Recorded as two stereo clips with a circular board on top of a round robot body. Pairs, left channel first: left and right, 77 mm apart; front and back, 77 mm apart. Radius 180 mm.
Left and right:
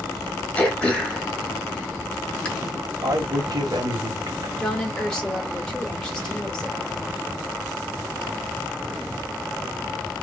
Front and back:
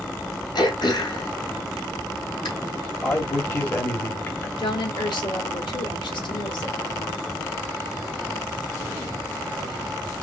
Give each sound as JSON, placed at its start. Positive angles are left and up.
{"t": 0.6, "sound": "throat clearing", "azimuth_deg": 10, "distance_m": 2.0}
{"t": 3.0, "sound": "a man speaking", "azimuth_deg": -60, "distance_m": 1.7}
{"t": 4.6, "sound": "a woman speaking", "azimuth_deg": 10, "distance_m": 2.0}